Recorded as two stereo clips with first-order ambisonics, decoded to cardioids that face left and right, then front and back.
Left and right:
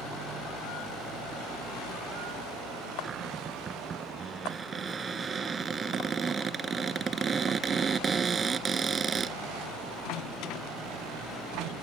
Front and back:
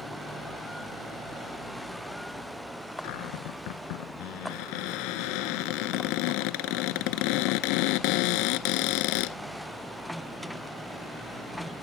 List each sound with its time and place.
3.0 s a cupboard door: 20° right